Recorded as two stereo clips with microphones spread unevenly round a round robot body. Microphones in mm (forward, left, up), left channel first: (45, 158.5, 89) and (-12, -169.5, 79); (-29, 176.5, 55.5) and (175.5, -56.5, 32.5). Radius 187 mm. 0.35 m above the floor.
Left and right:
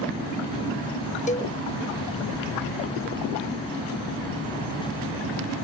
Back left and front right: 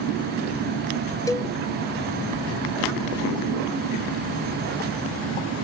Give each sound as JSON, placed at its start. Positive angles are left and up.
{"t": 1.3, "sound": "a cowbell", "azimuth_deg": 60, "distance_m": 0.8}